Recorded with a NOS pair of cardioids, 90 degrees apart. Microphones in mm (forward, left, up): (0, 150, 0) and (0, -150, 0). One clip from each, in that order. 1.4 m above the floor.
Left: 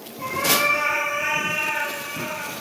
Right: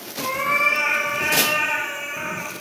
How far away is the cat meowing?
About 4.5 m.